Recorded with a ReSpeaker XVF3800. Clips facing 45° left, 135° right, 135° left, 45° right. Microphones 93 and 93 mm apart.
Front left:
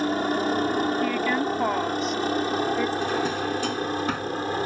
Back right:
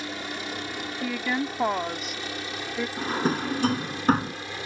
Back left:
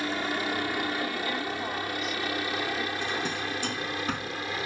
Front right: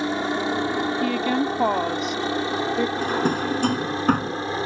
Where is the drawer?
85° right.